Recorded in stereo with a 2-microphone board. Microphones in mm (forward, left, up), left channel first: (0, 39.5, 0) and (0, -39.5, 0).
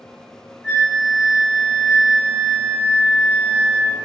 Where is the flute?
15° right (ahead or behind), 1.6 m.